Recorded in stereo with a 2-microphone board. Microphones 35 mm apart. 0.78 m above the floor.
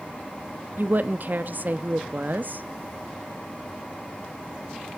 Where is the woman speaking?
55° right (ahead or behind), 0.8 m.